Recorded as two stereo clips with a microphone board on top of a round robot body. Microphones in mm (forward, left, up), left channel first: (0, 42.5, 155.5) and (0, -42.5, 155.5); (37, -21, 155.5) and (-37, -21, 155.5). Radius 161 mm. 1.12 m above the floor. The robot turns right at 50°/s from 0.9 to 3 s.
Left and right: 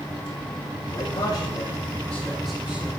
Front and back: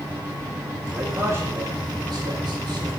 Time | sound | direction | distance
0.9 | a man speaking | 115° left | 6.5 m